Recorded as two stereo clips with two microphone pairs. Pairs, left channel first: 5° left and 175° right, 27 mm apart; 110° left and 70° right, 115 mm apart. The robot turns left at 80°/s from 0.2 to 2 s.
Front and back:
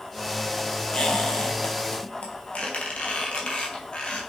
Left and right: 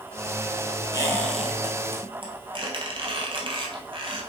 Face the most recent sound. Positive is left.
turn(degrees=-30)